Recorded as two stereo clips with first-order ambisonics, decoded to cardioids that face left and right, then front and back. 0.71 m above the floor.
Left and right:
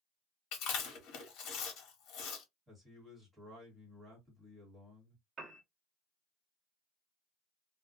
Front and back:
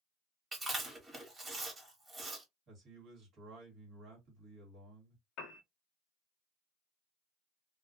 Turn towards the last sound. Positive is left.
turn(degrees=-30)